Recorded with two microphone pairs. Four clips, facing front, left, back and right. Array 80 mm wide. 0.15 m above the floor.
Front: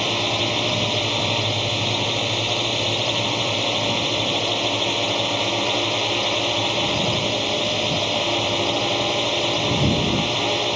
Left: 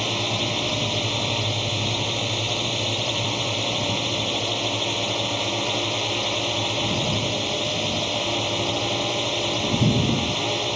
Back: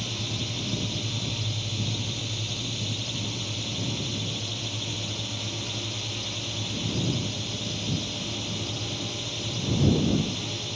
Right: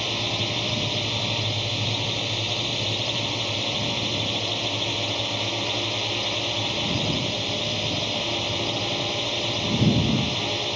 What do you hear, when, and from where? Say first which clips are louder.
0.0 s a drone: left 3 dB, front 12 dB; 15° left